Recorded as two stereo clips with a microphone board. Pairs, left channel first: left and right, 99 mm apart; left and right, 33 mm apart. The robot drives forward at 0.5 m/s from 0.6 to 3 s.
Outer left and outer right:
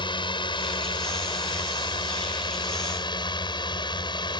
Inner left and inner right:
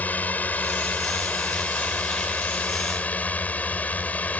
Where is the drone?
55° left (ahead or behind); by 4.4 s 50° left (ahead or behind).